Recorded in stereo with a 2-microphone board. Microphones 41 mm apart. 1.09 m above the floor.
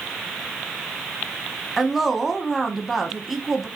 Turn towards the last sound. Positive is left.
turn(degrees=-5)  # may be behind; listen again after turning